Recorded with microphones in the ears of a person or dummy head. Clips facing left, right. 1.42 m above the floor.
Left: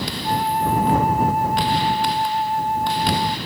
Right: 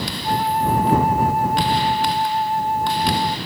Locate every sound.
0.2 s a flute: 55° right (ahead or behind)